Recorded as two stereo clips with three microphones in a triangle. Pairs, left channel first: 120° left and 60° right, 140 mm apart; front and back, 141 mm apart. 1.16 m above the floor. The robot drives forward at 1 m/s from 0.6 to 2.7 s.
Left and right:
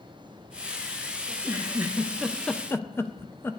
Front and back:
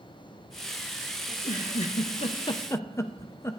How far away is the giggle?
About 1.7 m.